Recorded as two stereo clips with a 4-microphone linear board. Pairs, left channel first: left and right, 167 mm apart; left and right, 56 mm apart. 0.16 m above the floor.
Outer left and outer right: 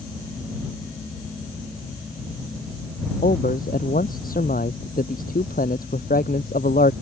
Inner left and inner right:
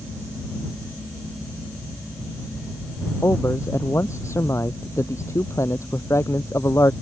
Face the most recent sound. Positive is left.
turn(degrees=60)  # may be behind; listen again after turning